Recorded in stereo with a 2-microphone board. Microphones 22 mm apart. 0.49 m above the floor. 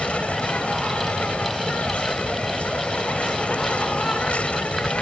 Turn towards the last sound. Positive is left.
turn(degrees=80)